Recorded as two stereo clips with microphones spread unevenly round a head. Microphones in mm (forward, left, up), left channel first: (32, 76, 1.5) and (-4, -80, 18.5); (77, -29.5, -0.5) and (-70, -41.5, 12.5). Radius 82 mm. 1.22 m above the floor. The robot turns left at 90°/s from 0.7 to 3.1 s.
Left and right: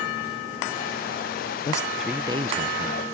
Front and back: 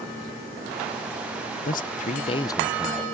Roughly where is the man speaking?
Ahead.